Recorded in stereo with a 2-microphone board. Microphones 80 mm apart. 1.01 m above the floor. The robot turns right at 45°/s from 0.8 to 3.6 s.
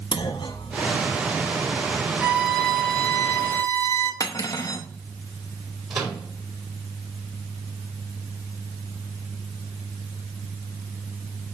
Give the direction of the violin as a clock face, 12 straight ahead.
1 o'clock.